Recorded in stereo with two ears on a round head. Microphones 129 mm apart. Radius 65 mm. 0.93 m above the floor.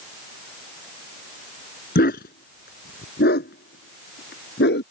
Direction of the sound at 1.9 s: 65° left (ahead or behind).